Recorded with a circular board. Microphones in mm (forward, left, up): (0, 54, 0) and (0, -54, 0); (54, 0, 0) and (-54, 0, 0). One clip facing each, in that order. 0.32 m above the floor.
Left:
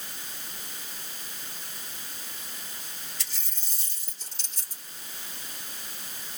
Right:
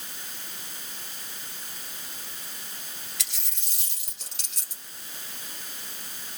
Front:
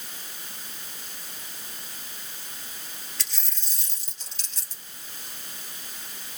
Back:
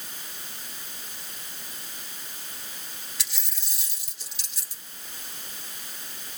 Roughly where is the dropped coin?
Right.